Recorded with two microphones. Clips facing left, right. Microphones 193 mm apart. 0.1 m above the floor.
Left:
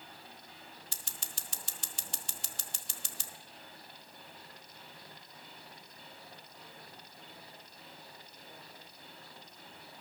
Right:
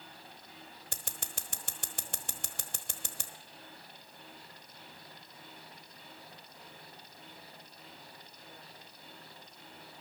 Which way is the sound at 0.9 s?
60° right (ahead or behind).